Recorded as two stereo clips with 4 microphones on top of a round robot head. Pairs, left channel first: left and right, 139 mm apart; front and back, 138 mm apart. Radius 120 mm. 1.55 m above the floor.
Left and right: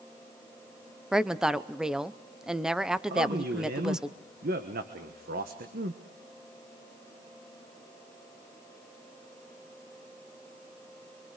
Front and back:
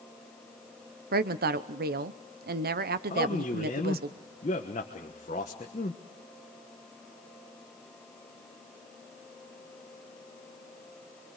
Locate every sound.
1.1 s a woman speaking: 175° right, 0.8 m
3.1 s a man speaking: 55° right, 1.2 m